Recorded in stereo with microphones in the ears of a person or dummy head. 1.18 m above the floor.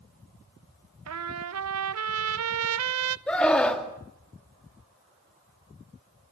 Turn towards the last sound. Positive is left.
turn(degrees=5)  # may be behind; listen again after turning